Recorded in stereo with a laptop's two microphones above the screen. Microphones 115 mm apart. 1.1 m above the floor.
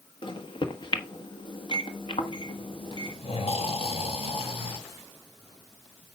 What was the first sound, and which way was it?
A microwave, 45° left (ahead or behind).